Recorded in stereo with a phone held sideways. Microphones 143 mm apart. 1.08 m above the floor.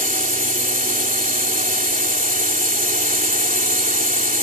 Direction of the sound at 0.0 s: 80° right.